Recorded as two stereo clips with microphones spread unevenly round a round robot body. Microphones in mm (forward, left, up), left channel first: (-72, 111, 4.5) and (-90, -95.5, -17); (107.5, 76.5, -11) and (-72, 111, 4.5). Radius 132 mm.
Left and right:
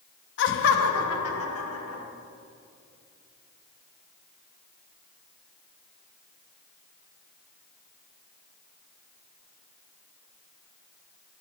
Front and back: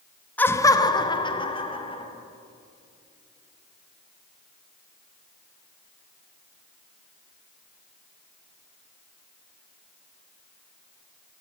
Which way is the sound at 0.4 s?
65° left.